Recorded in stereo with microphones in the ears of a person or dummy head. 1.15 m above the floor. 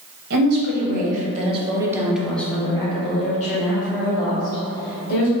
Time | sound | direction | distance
0.3 | a woman speaking | 65° right (ahead or behind) | 1.1 m